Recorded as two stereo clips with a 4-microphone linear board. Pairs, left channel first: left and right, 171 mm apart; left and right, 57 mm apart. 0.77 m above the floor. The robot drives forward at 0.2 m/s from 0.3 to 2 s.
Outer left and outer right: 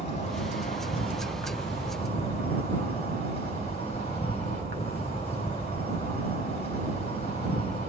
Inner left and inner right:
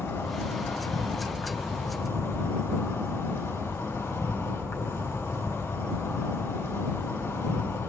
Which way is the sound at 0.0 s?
40° left (ahead or behind).